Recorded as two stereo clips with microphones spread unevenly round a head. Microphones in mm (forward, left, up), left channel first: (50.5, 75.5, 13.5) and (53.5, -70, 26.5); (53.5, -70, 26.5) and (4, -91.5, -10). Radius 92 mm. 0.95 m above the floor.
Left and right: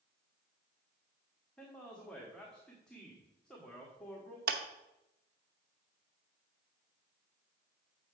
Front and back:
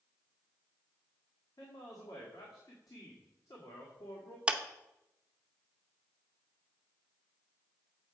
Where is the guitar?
I don't hear a guitar.